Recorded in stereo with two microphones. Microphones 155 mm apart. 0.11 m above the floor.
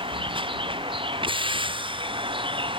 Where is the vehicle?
35° right (ahead or behind).